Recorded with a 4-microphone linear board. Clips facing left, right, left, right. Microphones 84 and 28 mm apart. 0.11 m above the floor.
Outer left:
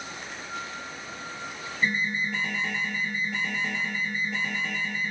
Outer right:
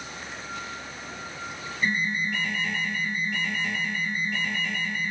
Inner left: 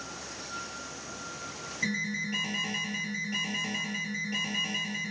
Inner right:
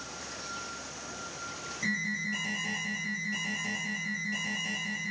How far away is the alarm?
About 3.5 m.